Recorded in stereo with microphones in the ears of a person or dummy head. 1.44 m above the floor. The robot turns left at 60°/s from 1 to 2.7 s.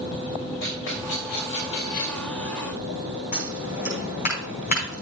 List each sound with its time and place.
0.6 s a rattle: 70° left (ahead or behind), 5.5 m; by 2.3 s 35° left (ahead or behind), 5.5 m
3.3 s scissors: 45° left (ahead or behind), 5 m